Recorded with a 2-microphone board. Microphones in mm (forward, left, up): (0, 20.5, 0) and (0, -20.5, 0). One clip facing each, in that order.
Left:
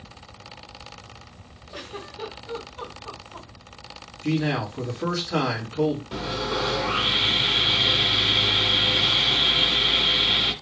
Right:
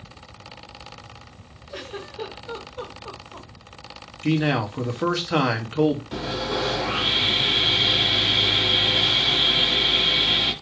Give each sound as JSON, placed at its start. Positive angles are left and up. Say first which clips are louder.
{"t": 1.7, "sound": "a giggle", "louder": "right 3 dB", "side_deg": -30, "distance_m": 1.8}
{"t": 4.2, "sound": "a man speaking", "louder": "right 3 dB", "side_deg": -55, "distance_m": 1.1}
{"t": 6.1, "sound": "sawing", "louder": "right 1 dB", "side_deg": -10, "distance_m": 1.2}